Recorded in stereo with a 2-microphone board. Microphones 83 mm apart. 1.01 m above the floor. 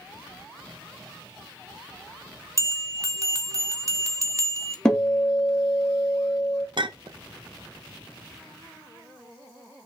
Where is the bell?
35° right (ahead or behind), 1.0 m.